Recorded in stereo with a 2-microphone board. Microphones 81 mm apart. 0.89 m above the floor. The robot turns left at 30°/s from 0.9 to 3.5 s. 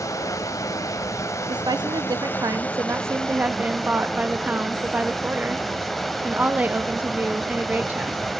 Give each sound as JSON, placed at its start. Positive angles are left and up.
{"t": 0.0, "sound": "running water", "azimuth_deg": 80, "distance_m": 0.8}
{"t": 1.5, "sound": "a woman speaking", "azimuth_deg": -100, "distance_m": 0.9}